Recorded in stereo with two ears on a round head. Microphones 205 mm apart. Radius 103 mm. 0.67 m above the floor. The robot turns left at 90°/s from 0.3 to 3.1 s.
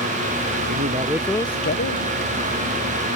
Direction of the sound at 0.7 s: 130° right.